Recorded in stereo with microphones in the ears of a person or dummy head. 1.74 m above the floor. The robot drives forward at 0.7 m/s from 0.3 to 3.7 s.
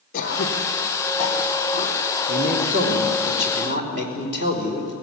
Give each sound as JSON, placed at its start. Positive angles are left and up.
{"t": 0.1, "sound": "throat clearing", "side_deg": 45, "distance_m": 2.5}
{"t": 2.3, "sound": "a man speaking", "side_deg": -45, "distance_m": 3.5}